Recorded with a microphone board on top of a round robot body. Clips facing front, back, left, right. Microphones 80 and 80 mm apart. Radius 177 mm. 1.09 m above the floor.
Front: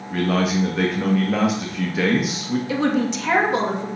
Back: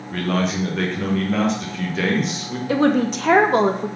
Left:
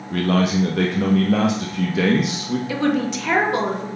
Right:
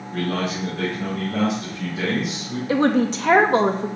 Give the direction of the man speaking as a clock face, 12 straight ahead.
9 o'clock.